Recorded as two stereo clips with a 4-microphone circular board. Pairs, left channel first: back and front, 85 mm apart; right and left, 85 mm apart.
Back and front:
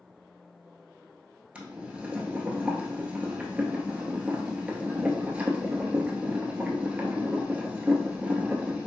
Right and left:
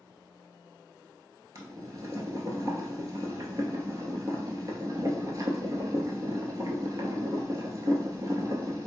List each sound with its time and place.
1.6 s boiling: 75° left, 0.8 m